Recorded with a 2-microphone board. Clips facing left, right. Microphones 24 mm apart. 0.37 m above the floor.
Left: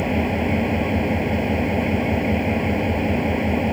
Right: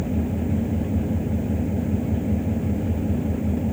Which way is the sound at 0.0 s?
65° left (ahead or behind).